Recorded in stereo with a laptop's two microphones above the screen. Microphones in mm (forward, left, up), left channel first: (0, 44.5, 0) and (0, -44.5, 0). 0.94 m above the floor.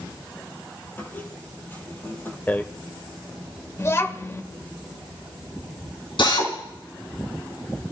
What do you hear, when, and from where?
1.0 s a squeak: 25° left (ahead or behind), 3 m
2.5 s a rattle: 20° left (ahead or behind), 1.4 m
3.8 s a child speaking: 30° left (ahead or behind), 1.8 m
6.2 s a drill: 70° left (ahead or behind), 5 m